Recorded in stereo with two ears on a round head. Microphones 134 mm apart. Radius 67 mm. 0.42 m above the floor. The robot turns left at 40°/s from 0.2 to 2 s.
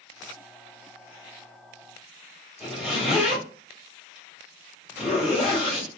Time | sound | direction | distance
2.6 | a zipper | 5° right (ahead or behind) | 1.6 m